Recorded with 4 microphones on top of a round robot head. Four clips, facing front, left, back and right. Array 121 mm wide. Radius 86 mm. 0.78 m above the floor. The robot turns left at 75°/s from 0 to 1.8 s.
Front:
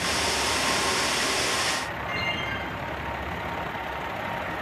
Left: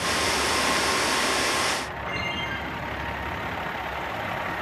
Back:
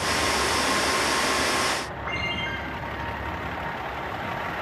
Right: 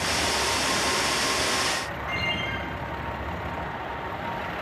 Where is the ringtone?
165° left, 6 m.